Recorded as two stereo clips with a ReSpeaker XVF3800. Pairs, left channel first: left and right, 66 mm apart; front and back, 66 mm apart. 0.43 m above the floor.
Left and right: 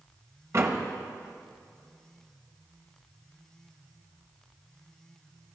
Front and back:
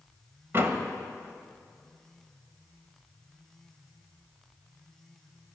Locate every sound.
0.5 s a door slam: 130° right, 1.4 m